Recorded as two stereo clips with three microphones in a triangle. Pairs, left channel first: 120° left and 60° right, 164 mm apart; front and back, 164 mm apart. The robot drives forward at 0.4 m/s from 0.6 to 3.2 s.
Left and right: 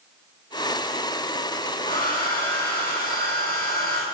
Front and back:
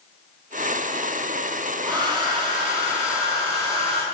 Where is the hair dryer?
120° left, 2.5 m; by 4.0 s 130° left, 3 m.